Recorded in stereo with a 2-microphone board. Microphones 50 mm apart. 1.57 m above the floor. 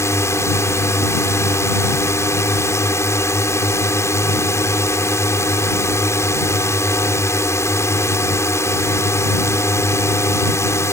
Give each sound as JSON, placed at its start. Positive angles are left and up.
{"t": 0.0, "sound": "a drone", "side_deg": 70}